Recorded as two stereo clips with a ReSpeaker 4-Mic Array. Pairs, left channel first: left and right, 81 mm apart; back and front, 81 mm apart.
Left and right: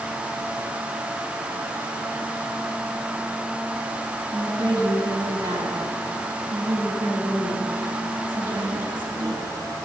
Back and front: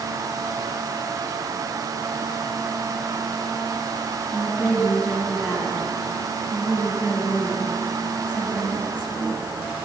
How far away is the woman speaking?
About 8 m.